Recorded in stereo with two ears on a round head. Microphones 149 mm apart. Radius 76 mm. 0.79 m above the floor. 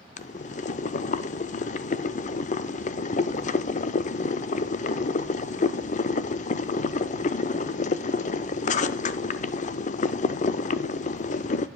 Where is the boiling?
45° left (ahead or behind), 0.6 m.